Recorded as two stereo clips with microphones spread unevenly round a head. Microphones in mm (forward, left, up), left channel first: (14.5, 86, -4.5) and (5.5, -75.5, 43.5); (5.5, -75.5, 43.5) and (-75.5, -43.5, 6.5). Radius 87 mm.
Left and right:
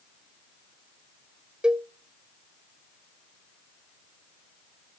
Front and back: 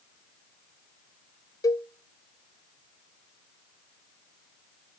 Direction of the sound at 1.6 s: 35° left.